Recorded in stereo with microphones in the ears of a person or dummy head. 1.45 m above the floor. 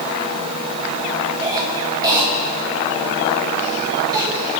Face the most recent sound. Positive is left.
turn(degrees=-20)  # may be behind; listen again after turning